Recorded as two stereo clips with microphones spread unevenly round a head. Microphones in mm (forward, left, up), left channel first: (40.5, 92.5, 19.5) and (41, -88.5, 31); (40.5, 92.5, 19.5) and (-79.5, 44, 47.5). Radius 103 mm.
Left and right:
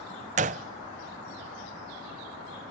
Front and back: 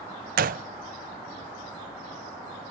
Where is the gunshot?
145° right, 0.6 m.